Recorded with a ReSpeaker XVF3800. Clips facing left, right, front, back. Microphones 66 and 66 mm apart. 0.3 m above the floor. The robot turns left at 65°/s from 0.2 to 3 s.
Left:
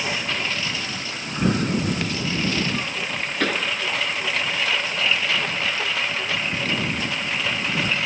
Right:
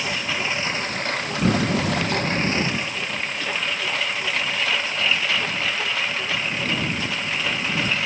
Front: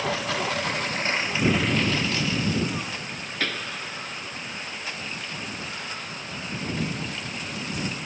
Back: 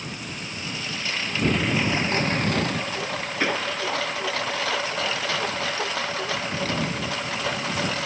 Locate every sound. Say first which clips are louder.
0.0 s a lawn mower: even, front 9 dB; straight ahead; by 8.1 s straight behind
3.4 s a pop: left 5 dB, back 5 dB; 110° left